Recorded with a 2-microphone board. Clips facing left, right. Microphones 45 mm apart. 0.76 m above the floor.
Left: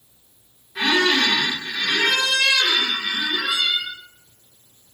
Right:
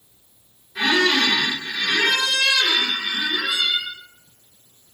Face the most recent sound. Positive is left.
turn(degrees=5)  # may be behind; listen again after turning